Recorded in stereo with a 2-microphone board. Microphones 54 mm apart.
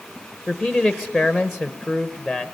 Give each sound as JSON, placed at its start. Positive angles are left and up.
{"t": 0.5, "sound": "a man speaking", "side_deg": -5, "distance_m": 0.8}